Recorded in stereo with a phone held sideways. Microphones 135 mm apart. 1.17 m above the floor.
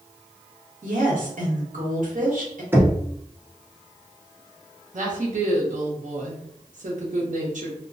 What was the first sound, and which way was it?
A woman speaking, 70° right (ahead or behind).